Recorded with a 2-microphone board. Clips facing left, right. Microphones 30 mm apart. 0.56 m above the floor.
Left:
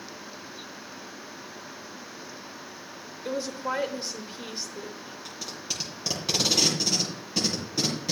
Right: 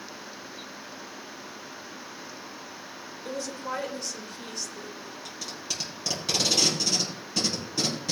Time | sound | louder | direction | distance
3.2 | a woman speaking | left 4 dB | 30° left (ahead or behind) | 1.8 m
5.2 | tape being pulled | even | 5° left (ahead or behind) | 4.5 m